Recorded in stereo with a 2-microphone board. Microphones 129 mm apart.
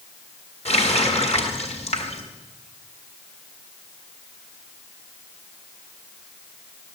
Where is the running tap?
60° left (ahead or behind), 2 m.